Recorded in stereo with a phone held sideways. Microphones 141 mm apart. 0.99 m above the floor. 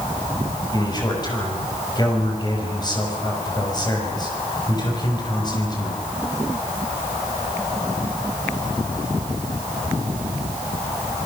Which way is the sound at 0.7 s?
30° left (ahead or behind).